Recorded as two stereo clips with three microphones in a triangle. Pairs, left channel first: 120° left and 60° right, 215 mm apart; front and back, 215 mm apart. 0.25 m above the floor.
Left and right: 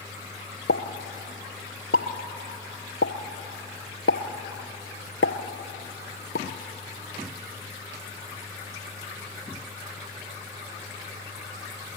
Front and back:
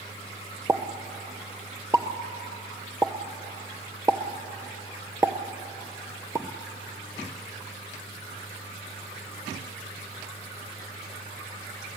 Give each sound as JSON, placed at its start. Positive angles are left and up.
{"t": 0.7, "sound": "a pop", "azimuth_deg": 105, "distance_m": 0.9}